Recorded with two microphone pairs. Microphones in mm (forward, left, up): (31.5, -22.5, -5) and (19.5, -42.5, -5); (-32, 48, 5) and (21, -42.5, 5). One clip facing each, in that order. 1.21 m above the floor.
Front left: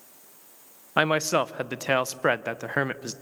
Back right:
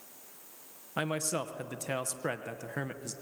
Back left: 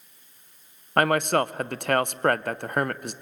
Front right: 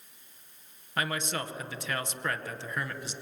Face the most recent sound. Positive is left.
turn(degrees=105)